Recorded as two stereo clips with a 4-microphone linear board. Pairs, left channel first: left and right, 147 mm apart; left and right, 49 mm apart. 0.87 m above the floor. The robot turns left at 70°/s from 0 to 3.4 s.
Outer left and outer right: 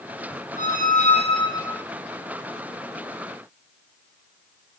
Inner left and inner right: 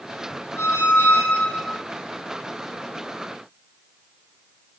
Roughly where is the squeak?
Left.